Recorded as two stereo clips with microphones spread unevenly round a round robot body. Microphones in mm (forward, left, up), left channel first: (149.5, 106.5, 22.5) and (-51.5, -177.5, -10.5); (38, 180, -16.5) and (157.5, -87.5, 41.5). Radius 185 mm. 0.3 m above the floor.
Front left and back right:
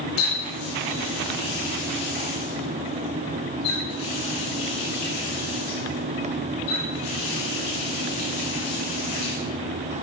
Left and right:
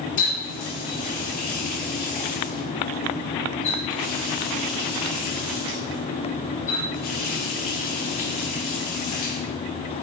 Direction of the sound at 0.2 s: 95° left.